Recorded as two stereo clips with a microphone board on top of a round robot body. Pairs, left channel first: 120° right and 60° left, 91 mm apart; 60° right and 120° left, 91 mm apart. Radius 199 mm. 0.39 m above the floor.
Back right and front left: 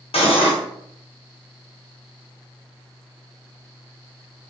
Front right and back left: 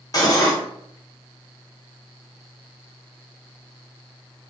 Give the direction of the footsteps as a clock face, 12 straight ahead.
I don't hear footsteps.